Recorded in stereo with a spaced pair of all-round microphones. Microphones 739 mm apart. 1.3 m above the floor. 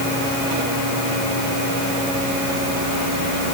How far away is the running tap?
No running tap in this recording.